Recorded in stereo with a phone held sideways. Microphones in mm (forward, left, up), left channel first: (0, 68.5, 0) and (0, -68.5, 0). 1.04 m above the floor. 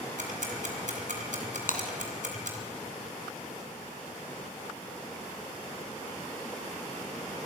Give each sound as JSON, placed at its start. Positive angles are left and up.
{"t": 0.2, "sound": "ticking", "side_deg": -65, "distance_m": 4.0}
{"t": 1.7, "sound": "breaking glass", "side_deg": 70, "distance_m": 3.0}